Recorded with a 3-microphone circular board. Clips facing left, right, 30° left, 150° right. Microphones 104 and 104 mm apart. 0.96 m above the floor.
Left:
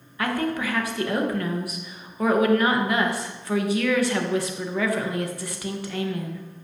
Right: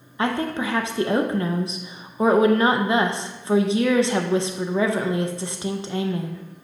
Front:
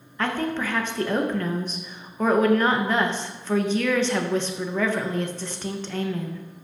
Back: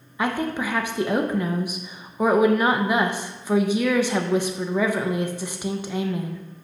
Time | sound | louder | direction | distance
0.2 | a woman speaking | right 2 dB, back 1 dB | 90° right | 0.6 m